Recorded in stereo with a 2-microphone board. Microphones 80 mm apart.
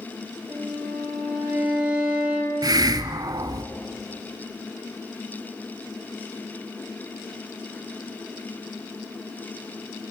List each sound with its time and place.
0.5 s a violin: 10° right (ahead or behind), 4.5 m
2.6 s a hiss: 55° right (ahead or behind), 0.7 m